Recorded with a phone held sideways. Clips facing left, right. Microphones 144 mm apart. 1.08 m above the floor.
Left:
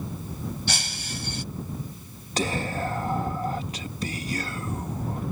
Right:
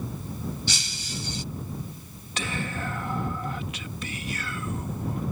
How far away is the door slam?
I don't hear a door slam.